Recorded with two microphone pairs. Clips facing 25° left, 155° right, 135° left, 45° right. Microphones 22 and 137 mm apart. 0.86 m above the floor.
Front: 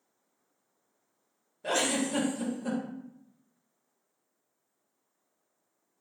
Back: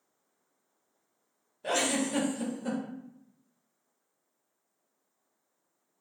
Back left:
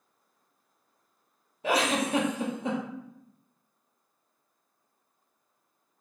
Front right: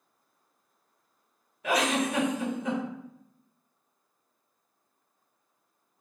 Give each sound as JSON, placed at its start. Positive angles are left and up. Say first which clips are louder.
{"t": 1.6, "sound": "a giggle", "louder": "even, even", "azimuth_deg": 120, "distance_m": 0.6}